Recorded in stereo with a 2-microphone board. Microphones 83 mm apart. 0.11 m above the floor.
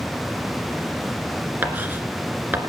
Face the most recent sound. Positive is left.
turn(degrees=-25)  # may be behind; listen again after turning